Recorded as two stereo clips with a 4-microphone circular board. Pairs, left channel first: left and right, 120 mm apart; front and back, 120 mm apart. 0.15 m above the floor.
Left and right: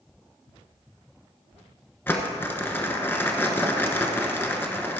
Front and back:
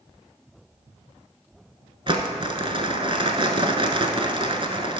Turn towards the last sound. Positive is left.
turn(degrees=155)